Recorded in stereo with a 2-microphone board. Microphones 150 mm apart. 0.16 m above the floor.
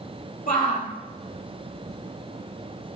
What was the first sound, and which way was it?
A shout, 70° left (ahead or behind).